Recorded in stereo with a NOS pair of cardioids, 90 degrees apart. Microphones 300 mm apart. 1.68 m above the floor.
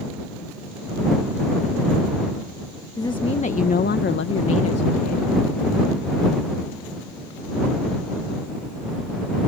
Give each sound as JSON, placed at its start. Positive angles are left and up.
{"t": 3.0, "sound": "a woman speaking", "azimuth_deg": 10}